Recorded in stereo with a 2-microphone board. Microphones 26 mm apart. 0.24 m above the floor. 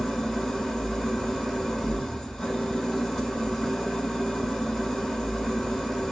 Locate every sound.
0.0 s an engine running: 20° left (ahead or behind), 3 m